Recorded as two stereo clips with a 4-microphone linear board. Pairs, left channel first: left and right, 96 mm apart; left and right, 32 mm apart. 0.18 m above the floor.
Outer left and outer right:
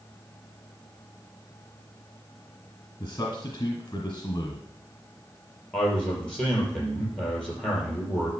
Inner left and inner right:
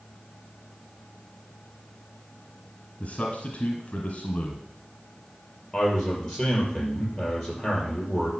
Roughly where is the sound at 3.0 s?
Left.